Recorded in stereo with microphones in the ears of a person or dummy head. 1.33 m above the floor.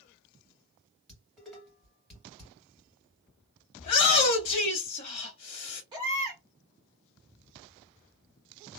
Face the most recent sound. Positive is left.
turn(degrees=-25)  # may be behind; listen again after turning